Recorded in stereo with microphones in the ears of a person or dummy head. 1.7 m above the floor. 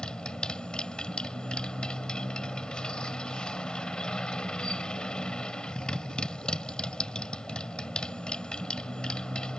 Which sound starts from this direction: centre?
A motorcycle, at 0.0 s.